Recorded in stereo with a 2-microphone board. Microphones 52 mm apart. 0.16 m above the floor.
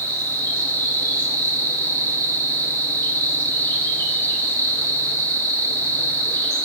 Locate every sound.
0.0 s an insect: 60° left (ahead or behind), 3 m